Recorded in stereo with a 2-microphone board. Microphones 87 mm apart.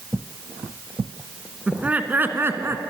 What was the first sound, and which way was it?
Laughter, 15° right (ahead or behind).